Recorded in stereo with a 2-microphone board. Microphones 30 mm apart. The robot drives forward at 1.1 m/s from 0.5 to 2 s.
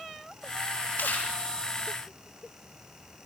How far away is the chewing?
About 8 m.